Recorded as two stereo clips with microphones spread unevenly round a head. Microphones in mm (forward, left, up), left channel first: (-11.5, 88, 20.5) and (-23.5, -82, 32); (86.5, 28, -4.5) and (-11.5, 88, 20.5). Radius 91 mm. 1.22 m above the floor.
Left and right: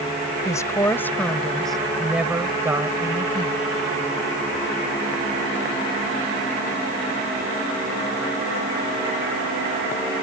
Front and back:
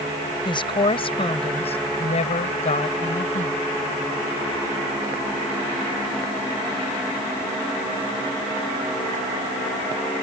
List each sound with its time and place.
0.5 s a woman speaking: 15° left; by 3.6 s 30° right